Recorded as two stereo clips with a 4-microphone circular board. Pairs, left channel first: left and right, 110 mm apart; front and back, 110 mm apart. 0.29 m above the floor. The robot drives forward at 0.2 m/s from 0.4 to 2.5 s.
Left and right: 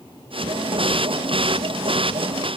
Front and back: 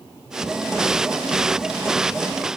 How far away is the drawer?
I don't hear a drawer.